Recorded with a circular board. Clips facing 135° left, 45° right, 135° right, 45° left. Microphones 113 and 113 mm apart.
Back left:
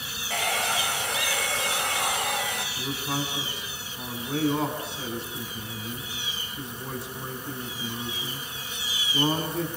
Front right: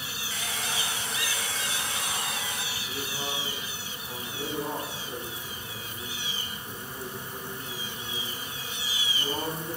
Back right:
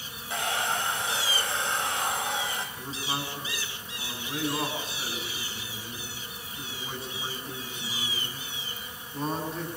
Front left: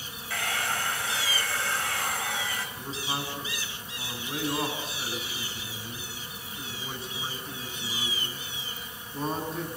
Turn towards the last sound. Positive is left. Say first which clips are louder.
# back left 6 dB, even
turn(degrees=135)